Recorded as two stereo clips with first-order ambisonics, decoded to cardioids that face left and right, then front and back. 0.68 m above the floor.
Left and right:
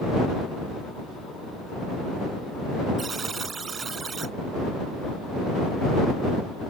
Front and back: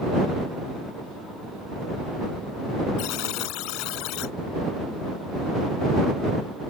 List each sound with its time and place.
3.0 s a buzzer: 20° right